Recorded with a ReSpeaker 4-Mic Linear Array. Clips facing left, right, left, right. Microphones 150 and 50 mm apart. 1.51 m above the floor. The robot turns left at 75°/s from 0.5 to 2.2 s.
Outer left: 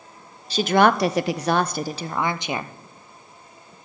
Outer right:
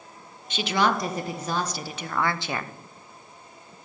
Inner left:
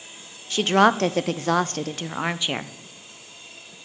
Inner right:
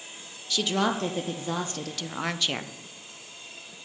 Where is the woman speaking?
145° left, 0.5 m; by 2.7 s 20° left, 0.5 m.